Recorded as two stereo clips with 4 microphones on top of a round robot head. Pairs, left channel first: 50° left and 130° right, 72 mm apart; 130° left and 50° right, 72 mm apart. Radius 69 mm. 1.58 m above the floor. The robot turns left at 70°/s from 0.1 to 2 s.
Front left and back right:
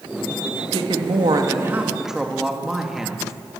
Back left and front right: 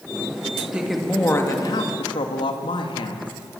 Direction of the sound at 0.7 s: 125° right.